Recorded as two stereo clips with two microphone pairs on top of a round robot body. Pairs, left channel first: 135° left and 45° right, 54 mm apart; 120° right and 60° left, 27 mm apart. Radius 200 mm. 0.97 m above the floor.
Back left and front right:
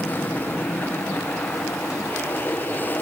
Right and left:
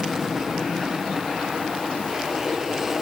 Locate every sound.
0.0 s an aircraft: 135° left